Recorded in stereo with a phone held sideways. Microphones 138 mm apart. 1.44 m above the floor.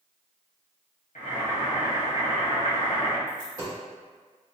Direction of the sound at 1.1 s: 75° left (ahead or behind).